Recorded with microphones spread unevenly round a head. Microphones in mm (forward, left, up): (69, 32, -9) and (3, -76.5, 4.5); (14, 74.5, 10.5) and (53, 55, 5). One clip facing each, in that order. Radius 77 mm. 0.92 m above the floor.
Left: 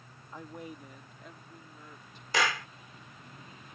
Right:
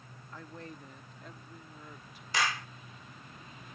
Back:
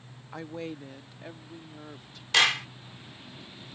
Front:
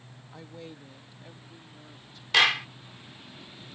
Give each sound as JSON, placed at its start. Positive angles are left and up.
{"t": 0.3, "sound": "a woman speaking", "azimuth_deg": 135}
{"t": 2.3, "sound": "a clap", "azimuth_deg": 60}